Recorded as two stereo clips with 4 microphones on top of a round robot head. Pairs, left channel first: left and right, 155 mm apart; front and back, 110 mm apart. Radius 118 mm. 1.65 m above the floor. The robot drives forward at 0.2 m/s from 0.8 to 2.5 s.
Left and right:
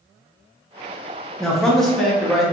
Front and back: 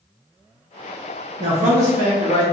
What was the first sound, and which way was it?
A man speaking, straight behind.